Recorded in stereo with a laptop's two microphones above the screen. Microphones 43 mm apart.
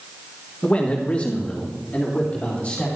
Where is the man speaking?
30° left (ahead or behind), 1.0 m; by 2.9 s 35° left (ahead or behind), 3.5 m.